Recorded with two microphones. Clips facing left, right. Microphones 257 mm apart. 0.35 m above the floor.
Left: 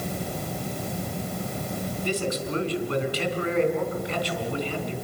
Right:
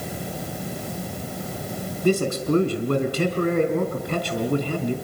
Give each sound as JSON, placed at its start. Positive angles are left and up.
{"t": 2.0, "sound": "a man speaking", "side_deg": -50, "distance_m": 4.0}